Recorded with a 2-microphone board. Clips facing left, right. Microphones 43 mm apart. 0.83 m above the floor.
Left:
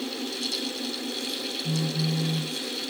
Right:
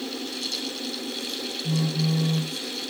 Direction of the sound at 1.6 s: 35° right (ahead or behind).